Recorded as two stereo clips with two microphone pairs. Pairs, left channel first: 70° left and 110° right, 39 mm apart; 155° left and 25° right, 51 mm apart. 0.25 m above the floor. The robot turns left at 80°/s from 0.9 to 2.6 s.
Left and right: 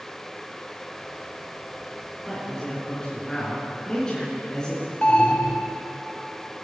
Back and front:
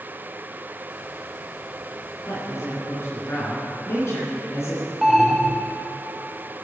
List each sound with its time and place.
2.3 s a man speaking: 165° left, 3.5 m; by 4.8 s 140° left, 3.5 m
5.0 s an alarm: 60° left, 0.8 m